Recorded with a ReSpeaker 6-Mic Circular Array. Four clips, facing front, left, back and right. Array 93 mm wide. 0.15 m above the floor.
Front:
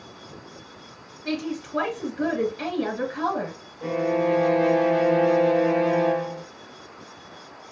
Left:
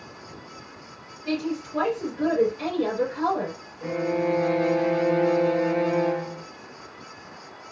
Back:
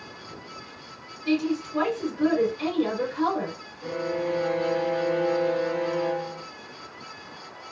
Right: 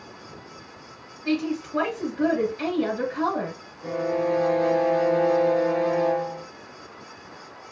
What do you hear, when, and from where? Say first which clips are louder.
1.2 s a woman speaking: right 2 dB, back 4 dB; 25° right, 2 m
3.8 s a violin: even, front 5 dB; 25° left, 0.7 m